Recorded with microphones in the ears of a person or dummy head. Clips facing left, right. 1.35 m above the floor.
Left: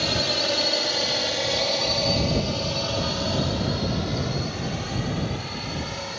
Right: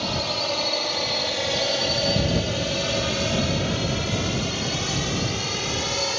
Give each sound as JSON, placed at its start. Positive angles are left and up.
{"t": 0.0, "sound": "a drone", "side_deg": 20}